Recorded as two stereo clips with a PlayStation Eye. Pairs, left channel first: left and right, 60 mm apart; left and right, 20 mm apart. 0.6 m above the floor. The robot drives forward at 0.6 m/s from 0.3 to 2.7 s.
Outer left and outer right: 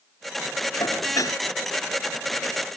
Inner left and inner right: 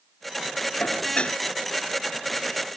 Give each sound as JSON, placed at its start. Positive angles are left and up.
{"t": 0.8, "sound": "dishes clattering", "side_deg": 70}